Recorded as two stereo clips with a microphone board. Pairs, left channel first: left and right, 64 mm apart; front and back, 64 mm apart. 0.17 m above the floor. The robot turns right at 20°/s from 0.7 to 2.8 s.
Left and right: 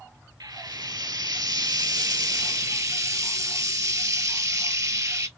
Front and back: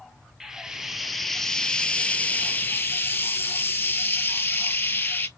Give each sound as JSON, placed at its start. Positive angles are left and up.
{"t": 0.4, "sound": "frying", "azimuth_deg": -95, "distance_m": 0.5}